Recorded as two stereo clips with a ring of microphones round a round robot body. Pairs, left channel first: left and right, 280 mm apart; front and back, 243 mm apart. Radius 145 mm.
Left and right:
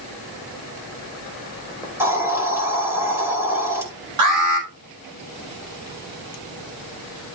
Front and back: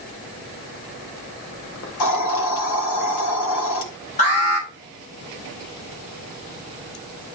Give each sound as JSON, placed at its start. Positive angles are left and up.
{"t": 1.8, "sound": "a hiss", "azimuth_deg": -10, "distance_m": 2.5}
{"t": 4.2, "sound": "an alarm", "azimuth_deg": -65, "distance_m": 4.5}